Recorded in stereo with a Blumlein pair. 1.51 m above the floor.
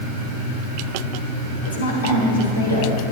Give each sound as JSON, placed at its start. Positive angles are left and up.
{"t": 1.6, "sound": "a woman speaking", "azimuth_deg": 70, "distance_m": 2.5}